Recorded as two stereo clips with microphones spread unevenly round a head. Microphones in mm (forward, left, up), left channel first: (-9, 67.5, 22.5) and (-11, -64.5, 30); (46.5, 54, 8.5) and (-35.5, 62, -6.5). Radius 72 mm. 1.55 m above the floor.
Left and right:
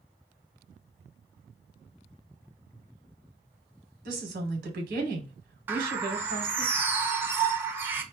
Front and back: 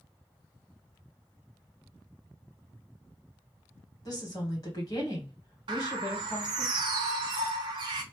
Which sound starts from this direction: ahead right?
A woman speaking, at 4.0 s.